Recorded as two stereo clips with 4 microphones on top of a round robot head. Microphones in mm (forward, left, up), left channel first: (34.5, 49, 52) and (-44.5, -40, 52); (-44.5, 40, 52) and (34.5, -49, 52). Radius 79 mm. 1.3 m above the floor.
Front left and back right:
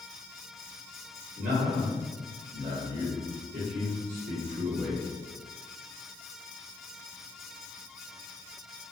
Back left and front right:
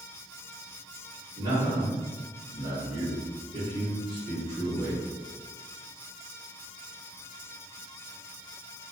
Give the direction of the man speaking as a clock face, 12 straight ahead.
4 o'clock.